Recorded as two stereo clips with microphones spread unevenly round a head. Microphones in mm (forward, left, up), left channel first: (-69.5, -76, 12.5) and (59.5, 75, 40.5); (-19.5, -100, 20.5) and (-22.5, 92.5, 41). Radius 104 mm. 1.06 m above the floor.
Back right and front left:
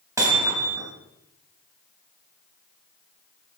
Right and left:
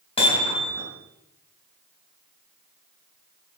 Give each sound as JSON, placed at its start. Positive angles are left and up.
{"t": 0.2, "sound": "hammering", "azimuth_deg": -25, "distance_m": 3.5}